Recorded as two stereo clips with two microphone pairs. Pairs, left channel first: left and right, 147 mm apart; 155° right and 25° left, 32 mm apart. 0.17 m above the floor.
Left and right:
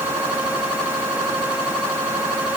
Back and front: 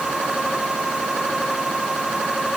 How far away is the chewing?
No chewing in this recording.